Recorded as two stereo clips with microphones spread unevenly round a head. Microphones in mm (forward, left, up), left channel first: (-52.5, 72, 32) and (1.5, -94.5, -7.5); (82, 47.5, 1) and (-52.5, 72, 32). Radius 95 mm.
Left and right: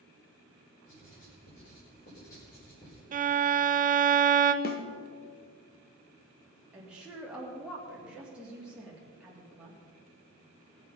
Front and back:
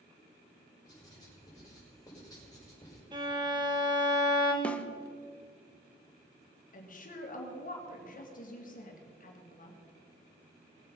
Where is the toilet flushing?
I don't hear a toilet flushing.